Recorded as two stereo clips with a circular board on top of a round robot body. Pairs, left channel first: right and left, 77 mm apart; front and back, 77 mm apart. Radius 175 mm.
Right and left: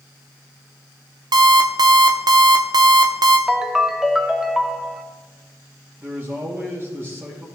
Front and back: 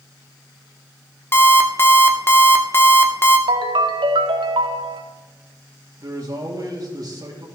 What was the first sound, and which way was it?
An alarm clock, 60° left.